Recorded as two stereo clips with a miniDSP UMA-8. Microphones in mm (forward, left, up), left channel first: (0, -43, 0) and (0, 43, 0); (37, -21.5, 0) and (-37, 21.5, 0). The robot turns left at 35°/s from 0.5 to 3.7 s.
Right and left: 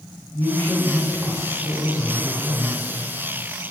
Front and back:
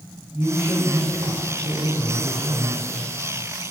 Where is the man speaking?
150° right, 3 m; by 2.8 s 130° left, 3 m.